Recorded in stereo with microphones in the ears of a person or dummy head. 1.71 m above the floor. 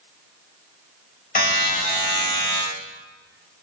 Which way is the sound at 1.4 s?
45° left (ahead or behind).